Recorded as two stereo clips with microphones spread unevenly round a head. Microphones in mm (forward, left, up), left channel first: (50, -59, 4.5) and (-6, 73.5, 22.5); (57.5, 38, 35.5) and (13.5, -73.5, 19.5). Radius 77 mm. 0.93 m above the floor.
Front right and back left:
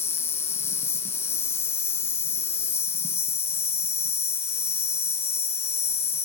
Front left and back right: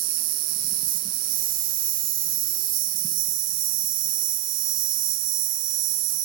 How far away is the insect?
About 2 m.